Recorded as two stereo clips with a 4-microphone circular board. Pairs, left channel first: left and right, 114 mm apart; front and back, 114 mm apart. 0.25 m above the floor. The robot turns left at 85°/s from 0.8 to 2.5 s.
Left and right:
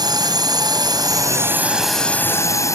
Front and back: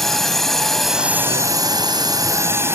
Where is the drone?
85° right; by 2.8 s 130° left.